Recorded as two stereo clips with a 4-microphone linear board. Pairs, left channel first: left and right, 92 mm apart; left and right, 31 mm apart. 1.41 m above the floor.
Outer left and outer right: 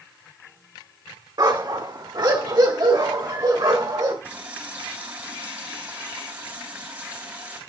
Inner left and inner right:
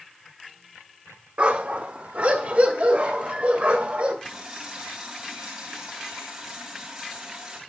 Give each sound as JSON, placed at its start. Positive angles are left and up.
{"t": 1.4, "sound": "a dog barking", "side_deg": -50, "distance_m": 1.3}
{"t": 4.2, "sound": "a running tap", "side_deg": -20, "distance_m": 4.0}